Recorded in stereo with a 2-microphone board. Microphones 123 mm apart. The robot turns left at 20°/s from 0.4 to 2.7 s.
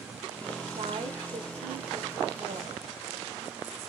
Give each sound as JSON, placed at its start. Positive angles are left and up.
{"t": 0.7, "sound": "a woman speaking", "azimuth_deg": -55, "distance_m": 3.0}